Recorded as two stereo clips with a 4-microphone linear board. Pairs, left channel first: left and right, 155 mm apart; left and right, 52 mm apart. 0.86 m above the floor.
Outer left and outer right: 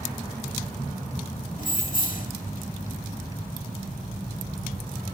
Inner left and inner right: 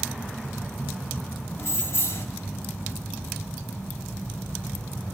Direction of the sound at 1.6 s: 60° left (ahead or behind).